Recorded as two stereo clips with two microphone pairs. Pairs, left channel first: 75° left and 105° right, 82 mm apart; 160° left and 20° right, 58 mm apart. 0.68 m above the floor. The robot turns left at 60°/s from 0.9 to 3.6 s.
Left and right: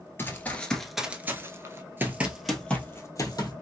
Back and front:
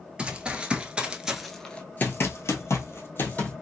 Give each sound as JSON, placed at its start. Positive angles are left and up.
{"t": 0.2, "sound": "running footsteps", "azimuth_deg": 35, "distance_m": 0.8}